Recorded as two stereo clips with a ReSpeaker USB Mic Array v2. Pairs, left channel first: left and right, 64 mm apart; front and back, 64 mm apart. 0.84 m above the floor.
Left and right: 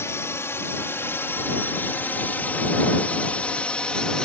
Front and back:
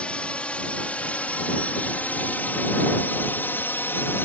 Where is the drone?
65° left; by 4.3 s 20° left.